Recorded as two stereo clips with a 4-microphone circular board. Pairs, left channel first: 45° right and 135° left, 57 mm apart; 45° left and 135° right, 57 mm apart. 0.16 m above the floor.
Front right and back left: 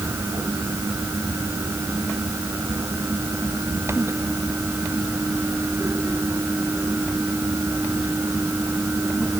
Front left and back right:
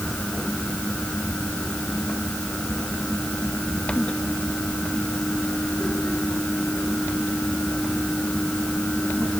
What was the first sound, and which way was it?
Only background noise.